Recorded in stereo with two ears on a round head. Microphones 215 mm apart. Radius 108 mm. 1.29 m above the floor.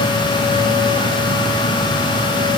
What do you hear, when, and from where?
Only background noise.